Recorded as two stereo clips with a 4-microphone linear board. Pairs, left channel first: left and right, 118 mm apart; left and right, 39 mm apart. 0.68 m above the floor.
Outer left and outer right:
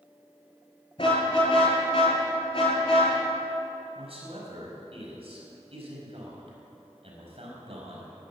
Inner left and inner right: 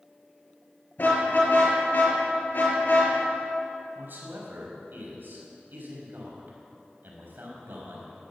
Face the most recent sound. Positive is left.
turn(degrees=-55)  # may be behind; listen again after turning